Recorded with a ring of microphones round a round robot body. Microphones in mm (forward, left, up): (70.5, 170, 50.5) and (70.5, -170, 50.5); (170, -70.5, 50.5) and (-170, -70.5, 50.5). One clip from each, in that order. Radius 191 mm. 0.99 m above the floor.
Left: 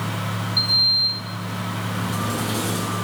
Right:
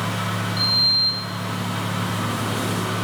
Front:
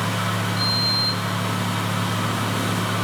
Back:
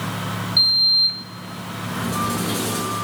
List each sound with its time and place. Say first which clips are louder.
0.6 s a sliding door: left 1 dB, back 8 dB; 160° left, 1.8 m